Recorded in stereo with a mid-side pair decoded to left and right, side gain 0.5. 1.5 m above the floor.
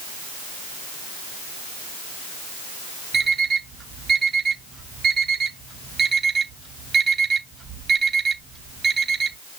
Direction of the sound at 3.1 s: 30° right.